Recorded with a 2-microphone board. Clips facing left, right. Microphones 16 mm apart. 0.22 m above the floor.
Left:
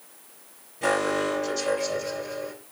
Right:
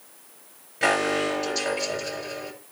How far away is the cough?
No cough in this recording.